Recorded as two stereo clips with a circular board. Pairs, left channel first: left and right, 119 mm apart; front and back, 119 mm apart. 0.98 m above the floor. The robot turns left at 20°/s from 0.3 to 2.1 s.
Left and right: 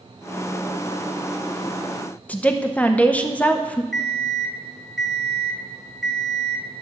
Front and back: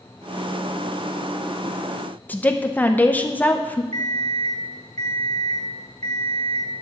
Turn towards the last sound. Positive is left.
turn(degrees=180)